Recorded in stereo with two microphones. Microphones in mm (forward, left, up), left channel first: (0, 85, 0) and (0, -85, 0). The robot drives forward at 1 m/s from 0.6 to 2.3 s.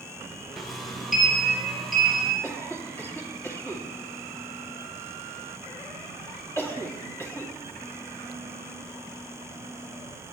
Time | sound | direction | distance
0.6 | a sliding door | centre (ahead or behind) | 1.7 m
2.4 | a cough | 15° left (ahead or behind) | 2.5 m